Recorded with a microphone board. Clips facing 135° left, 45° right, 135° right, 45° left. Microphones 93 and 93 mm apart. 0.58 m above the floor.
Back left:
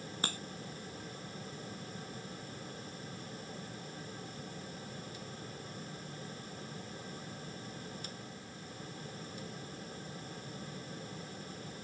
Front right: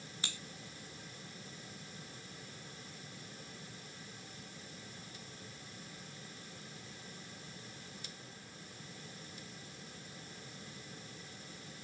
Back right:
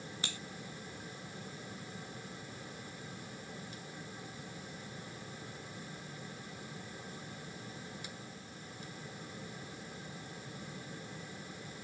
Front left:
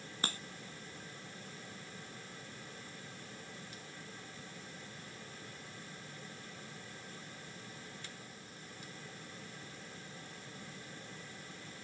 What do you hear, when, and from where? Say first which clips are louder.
0.2 s a crack: back left 8 dB, front left 7 dB; 95° left